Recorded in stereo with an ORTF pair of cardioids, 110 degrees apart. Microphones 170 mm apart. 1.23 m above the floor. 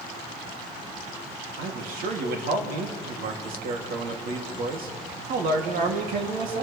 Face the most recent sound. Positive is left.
turn(degrees=-65)